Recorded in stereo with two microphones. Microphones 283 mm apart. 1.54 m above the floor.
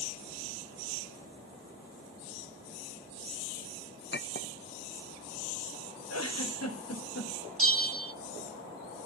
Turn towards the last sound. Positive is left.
turn(degrees=-50)  # may be behind; listen again after turning